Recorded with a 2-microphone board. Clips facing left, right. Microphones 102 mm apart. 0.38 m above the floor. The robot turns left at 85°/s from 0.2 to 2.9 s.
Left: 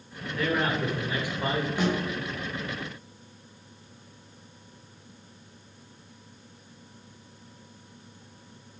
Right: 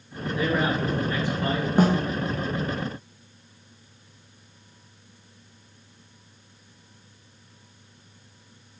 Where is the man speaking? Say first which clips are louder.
Right 2 dB; 15° right (ahead or behind), 1.3 m; by 1.7 s 25° left (ahead or behind), 1.3 m.